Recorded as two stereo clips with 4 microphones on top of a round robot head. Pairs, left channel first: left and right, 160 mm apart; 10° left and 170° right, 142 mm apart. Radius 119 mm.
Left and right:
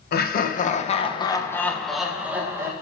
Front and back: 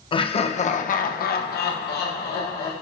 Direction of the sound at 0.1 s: 65° left.